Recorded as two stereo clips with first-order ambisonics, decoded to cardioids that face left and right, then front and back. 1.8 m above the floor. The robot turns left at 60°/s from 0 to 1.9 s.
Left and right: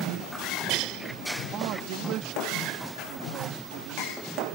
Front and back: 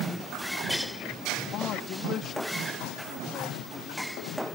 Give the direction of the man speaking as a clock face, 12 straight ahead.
1 o'clock.